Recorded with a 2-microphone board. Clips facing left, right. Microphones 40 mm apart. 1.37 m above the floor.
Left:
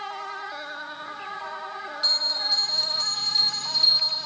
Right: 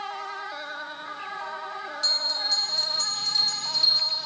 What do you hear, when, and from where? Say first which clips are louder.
2.0 s a bell: left 2 dB; 15° left (ahead or behind), 1.3 m